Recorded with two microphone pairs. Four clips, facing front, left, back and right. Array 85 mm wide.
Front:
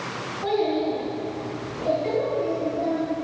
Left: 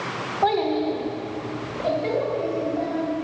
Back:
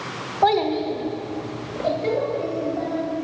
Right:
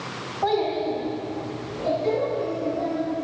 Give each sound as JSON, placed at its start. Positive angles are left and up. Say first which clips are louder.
{"t": 0.4, "sound": "a child speaking", "louder": "left 2 dB, back 4 dB", "azimuth_deg": 160, "distance_m": 1.5}